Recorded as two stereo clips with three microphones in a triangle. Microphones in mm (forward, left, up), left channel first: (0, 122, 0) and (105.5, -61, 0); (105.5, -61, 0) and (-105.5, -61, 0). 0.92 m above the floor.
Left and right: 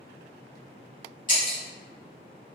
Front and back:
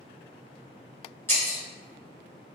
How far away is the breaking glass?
About 1.1 m.